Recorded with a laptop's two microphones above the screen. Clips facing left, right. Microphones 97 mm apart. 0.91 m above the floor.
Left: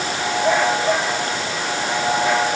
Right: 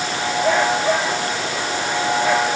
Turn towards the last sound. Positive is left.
No sound to turn to.